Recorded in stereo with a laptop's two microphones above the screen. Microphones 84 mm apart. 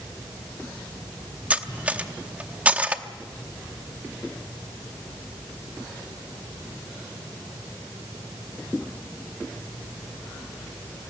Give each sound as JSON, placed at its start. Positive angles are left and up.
{"t": 1.5, "sound": "cutlery clinking", "side_deg": -15, "distance_m": 0.8}